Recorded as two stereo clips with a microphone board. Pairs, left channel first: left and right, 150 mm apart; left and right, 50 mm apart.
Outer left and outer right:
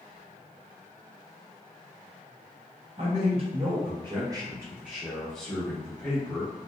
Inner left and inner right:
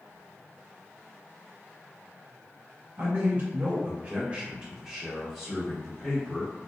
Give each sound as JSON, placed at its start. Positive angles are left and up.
{"t": 3.0, "sound": "a man speaking", "side_deg": -45, "distance_m": 1.1}